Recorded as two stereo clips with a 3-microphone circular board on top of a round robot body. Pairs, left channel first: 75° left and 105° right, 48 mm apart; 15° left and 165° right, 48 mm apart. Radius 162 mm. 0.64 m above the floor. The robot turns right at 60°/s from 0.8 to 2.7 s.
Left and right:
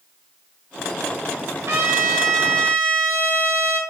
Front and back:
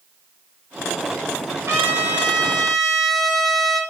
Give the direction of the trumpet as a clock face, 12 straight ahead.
4 o'clock.